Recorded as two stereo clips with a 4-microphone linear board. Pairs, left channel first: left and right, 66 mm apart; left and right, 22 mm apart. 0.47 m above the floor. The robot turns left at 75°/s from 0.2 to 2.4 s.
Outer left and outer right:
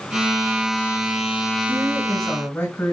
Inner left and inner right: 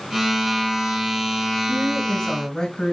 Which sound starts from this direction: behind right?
A woman speaking, at 1.7 s.